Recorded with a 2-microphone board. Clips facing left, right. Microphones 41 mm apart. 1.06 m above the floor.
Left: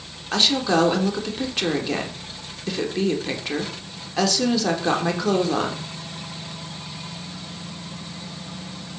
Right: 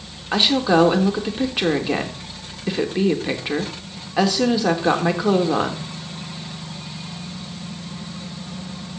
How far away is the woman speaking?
About 3.5 m.